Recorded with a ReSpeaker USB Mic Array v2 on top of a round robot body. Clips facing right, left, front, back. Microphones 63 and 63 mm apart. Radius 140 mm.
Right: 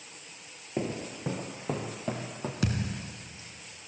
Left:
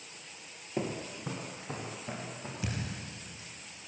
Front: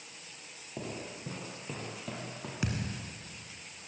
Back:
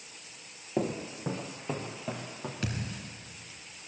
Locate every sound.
0.8 s footsteps: 170° right, 1.3 m; by 2.5 s 95° right, 2.5 m
2.6 s a thud: 80° right, 2.5 m